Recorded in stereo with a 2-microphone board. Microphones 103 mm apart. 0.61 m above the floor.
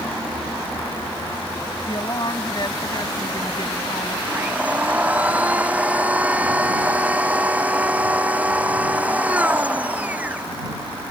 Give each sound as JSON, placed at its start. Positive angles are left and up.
{"t": 1.9, "sound": "a woman speaking", "side_deg": 45}
{"t": 4.3, "sound": "a blender", "side_deg": -15}